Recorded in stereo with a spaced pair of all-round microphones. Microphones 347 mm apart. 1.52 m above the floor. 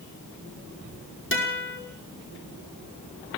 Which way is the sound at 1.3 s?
35° left (ahead or behind).